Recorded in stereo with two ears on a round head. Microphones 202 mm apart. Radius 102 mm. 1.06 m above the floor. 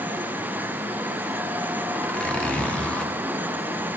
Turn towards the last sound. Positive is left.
turn(degrees=5)  # may be behind; listen again after turning